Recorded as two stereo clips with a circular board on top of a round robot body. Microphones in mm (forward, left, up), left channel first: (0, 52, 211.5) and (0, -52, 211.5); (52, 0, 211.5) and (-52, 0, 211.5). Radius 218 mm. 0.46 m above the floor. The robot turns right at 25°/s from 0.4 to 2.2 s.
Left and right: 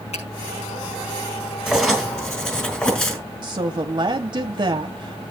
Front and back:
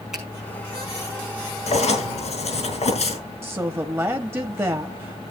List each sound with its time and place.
0.1 s a finger snap: 90° left, 6 m
1.7 s writing: straight ahead, 3.5 m; by 3.2 s 15° left, 3.5 m
3.4 s a woman speaking: 120° right, 1.3 m